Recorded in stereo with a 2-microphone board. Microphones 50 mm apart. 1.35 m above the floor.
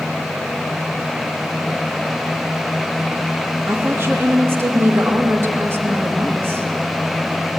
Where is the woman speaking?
55° right (ahead or behind), 3 m.